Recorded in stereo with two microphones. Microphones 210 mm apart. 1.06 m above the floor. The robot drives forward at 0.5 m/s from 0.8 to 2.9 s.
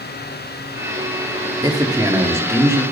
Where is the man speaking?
20° right (ahead or behind), 1.5 m; by 2.8 s 15° right (ahead or behind), 2 m.